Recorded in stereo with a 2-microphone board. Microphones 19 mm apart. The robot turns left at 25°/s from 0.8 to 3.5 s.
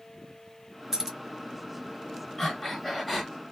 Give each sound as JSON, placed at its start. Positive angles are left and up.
{"t": 0.9, "sound": "keys jangling", "side_deg": -25, "distance_m": 1.4}
{"t": 2.4, "sound": "breathing", "side_deg": 10, "distance_m": 0.9}